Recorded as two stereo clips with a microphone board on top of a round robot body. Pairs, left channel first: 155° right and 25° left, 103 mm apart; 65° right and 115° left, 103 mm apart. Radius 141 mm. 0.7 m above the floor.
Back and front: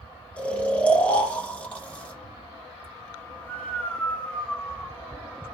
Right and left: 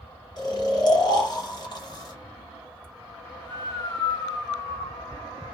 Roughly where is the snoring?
Right.